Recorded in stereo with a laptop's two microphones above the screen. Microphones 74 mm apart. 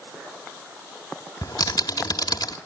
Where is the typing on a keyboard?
75° left (ahead or behind), 1.7 m.